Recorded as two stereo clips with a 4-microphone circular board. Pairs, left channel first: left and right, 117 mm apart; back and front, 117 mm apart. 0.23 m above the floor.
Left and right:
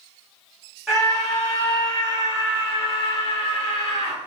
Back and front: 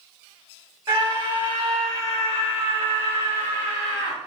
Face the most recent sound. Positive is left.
turn(degrees=130)